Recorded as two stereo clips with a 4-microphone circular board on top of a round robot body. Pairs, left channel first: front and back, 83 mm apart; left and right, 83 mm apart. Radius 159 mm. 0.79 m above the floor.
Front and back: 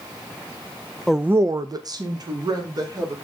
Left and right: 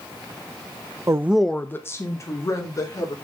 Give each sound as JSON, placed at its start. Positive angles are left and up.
{"t": 1.1, "sound": "a woman speaking", "azimuth_deg": -80, "distance_m": 0.7}